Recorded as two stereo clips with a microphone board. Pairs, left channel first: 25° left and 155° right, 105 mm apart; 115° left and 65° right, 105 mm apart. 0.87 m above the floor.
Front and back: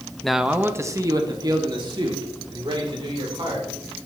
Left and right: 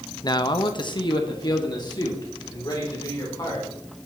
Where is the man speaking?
105° left, 0.7 m; by 3.7 s 165° left, 3.5 m.